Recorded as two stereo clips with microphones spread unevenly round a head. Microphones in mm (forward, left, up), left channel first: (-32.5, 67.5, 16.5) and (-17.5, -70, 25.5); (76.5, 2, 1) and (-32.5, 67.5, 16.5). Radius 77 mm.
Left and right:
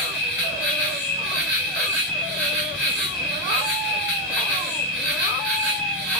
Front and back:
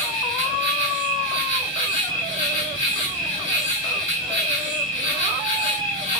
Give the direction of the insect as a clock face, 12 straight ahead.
12 o'clock.